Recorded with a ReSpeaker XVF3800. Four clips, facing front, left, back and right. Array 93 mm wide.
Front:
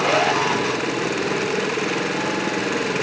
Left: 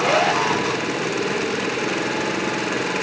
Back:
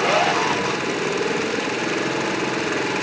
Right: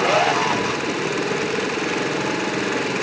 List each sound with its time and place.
Only background noise.